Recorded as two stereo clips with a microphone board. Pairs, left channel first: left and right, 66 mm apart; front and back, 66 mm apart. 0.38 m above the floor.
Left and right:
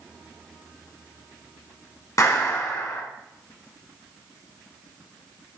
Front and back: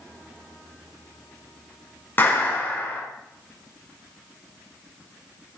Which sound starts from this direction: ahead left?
A clap, at 2.2 s.